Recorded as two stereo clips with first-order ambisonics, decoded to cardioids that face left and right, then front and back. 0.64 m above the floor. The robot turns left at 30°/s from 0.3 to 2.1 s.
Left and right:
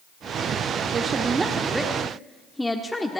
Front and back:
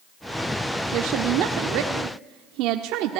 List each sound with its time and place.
0.9 s a woman speaking: 150° right, 1.4 m; by 3.2 s 175° left, 1.4 m